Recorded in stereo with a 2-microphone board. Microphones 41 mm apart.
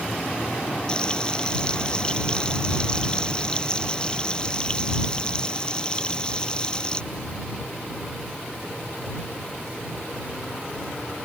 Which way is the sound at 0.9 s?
25° left (ahead or behind).